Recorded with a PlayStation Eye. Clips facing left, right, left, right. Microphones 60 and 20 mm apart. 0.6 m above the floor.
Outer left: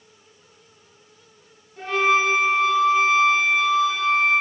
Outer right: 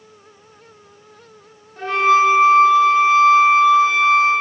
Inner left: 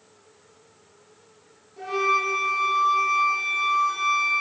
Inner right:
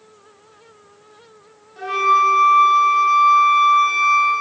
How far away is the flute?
About 1.8 m.